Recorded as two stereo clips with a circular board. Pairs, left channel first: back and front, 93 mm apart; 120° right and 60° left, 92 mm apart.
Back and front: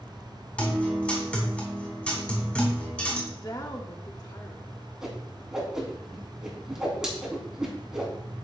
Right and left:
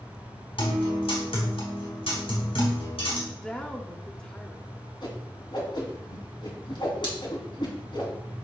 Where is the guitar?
105° right, 4 m.